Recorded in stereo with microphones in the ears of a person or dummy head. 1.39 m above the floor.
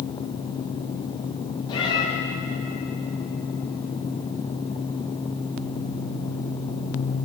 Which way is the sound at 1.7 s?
25° left (ahead or behind).